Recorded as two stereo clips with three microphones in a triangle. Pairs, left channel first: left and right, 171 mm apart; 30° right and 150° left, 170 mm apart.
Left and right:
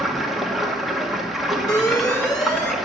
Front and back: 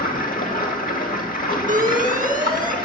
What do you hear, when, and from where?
0.0 s running water: straight ahead, 1.8 m
1.7 s an alarm: 155° left, 1.7 m